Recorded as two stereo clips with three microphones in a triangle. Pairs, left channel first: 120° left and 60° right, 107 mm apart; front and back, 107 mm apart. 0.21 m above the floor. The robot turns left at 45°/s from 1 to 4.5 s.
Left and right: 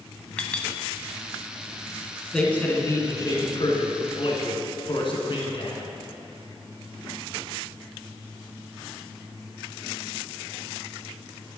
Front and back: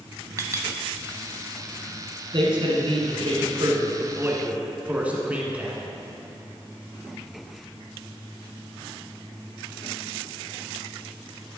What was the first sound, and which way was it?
A clink, 170° right.